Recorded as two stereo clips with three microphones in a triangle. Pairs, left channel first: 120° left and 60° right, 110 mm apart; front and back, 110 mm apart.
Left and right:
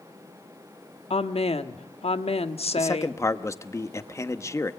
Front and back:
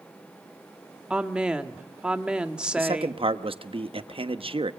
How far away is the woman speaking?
About 1.3 m.